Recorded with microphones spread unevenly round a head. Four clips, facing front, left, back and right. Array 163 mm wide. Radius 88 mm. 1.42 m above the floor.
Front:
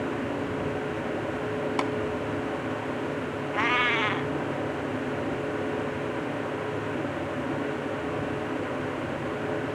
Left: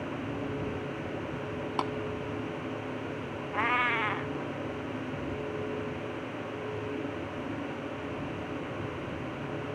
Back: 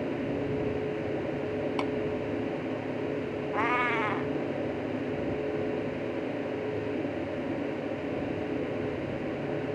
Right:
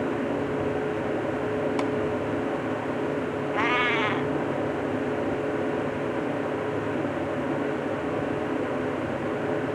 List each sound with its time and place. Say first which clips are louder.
1.8 s tapping: right 5 dB, front 4 dB; 45° left
3.5 s a cat meowing: right 3 dB, front 2 dB; 80° left